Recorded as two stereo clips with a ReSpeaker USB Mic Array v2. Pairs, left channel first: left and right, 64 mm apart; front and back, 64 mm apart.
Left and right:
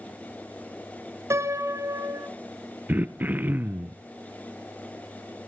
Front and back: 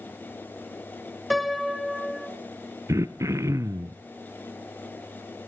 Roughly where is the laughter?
I don't hear laughter.